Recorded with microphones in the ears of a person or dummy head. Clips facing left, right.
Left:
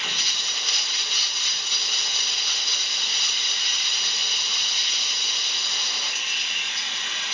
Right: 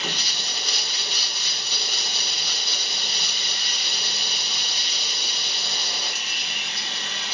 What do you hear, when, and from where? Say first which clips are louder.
0.0 s running water: right 5 dB; 35° right (ahead or behind), 1.0 m